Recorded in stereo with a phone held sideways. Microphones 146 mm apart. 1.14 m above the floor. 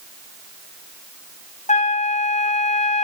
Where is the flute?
50° left (ahead or behind), 0.5 m.